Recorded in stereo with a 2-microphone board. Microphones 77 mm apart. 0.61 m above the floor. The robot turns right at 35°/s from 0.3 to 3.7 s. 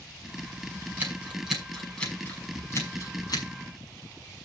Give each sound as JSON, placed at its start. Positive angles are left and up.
{"t": 1.0, "sound": "scissors", "side_deg": -25, "distance_m": 6.0}